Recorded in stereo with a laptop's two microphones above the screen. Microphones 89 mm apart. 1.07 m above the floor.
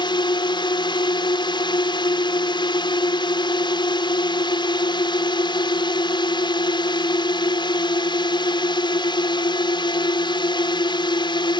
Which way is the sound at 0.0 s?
60° left (ahead or behind).